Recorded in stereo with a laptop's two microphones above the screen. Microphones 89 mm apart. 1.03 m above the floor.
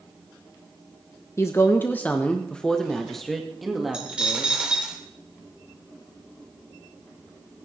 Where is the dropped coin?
10° right (ahead or behind), 1.3 m.